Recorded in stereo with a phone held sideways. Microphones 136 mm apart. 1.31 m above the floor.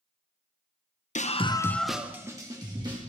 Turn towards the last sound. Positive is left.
turn(degrees=-35)  # may be behind; listen again after turning